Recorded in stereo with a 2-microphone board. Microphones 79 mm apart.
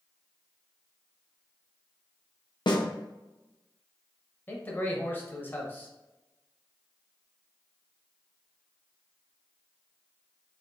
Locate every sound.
2.7 s a snare drum: 65° left (ahead or behind), 0.7 m
4.5 s a man speaking: 25° left (ahead or behind), 0.9 m